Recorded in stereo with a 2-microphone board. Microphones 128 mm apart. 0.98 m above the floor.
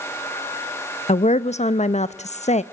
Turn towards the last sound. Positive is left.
turn(degrees=60)  # may be behind; listen again after turning